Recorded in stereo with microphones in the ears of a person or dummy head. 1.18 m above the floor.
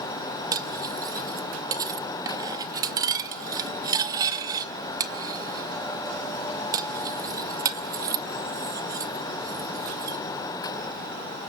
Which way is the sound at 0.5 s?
20° right (ahead or behind).